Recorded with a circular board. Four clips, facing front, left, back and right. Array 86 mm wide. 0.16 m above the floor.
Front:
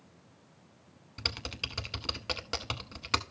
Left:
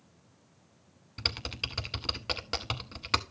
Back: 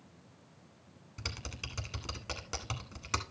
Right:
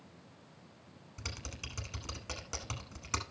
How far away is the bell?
I don't hear a bell.